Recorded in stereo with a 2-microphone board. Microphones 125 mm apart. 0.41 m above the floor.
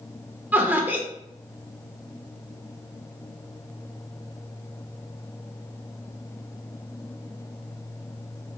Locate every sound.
0.5 s laughter: 15° right (ahead or behind), 0.7 m